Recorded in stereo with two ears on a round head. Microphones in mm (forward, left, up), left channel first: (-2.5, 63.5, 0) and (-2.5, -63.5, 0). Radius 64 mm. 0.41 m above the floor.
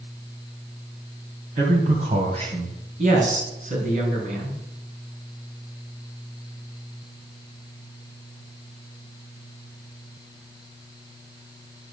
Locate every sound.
1.6 s a man speaking: 55° right (ahead or behind), 2.5 m; by 2.8 s 35° right (ahead or behind), 2.0 m
3.0 s a man speaking: 55° right (ahead or behind), 4.5 m